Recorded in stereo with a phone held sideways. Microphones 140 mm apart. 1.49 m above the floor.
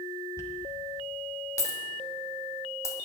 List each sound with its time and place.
0.4 s a dropped coin: 20° left (ahead or behind), 1.4 m